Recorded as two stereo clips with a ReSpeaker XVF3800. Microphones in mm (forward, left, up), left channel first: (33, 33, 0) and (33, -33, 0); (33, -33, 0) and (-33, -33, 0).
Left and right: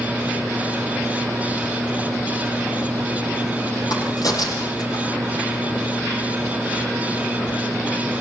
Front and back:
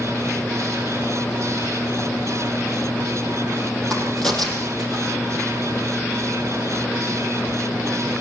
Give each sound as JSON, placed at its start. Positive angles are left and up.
{"t": 3.9, "sound": "a crack", "azimuth_deg": 80, "distance_m": 8.0}